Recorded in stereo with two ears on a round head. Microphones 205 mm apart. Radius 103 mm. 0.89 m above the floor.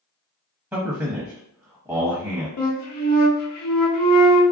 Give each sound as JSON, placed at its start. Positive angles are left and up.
{"t": 0.7, "sound": "a man speaking", "side_deg": -10, "distance_m": 0.7}
{"t": 2.6, "sound": "a flute", "side_deg": 80, "distance_m": 0.8}